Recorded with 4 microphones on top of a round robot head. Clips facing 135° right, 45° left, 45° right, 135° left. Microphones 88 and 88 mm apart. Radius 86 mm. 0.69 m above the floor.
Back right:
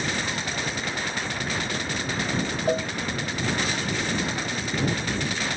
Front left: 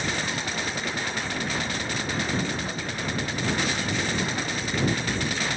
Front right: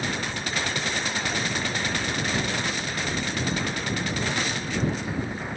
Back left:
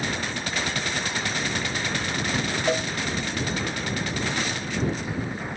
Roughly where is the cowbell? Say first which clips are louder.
Back right 9 dB, back left 7 dB; behind.